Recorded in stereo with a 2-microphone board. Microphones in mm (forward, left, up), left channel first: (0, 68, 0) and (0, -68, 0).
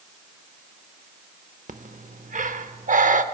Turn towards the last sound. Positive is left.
turn(degrees=-70)  # may be behind; listen again after turning